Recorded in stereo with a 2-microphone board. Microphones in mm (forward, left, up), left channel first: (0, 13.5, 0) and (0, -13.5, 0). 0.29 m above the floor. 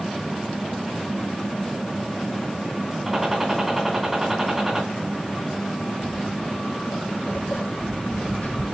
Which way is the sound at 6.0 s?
80° left.